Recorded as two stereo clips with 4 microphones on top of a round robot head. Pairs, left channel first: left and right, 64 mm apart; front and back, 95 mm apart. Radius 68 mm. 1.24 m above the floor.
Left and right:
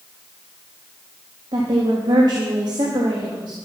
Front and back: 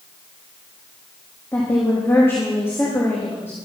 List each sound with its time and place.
1.5 s a woman speaking: 70° right, 1.9 m